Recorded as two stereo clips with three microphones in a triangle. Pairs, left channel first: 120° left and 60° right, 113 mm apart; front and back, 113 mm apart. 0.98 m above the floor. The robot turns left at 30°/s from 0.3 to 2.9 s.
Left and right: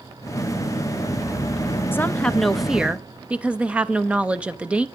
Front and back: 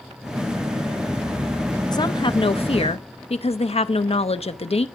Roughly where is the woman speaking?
Ahead left.